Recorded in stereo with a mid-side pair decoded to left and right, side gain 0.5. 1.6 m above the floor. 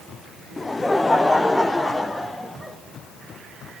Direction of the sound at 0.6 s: 15° left.